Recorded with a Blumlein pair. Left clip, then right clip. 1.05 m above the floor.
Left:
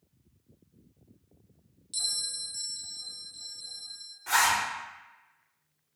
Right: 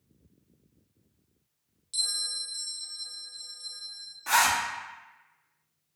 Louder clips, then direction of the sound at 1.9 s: Right 2 dB; straight ahead.